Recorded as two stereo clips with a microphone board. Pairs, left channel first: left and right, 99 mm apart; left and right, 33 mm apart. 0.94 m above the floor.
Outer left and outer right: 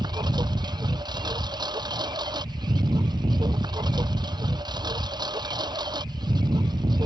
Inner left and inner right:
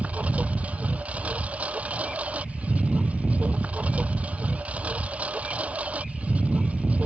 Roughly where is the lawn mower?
Right.